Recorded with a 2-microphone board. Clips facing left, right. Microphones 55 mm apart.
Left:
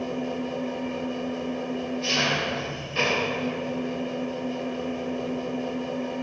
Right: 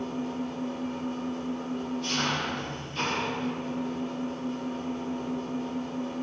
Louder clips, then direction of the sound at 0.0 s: Left 3 dB; 55° left (ahead or behind).